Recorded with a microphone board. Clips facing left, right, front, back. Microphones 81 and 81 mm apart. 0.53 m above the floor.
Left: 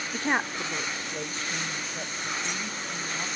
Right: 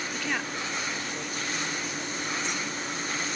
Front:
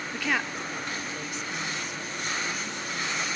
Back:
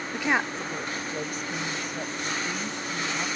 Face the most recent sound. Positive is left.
turn(degrees=150)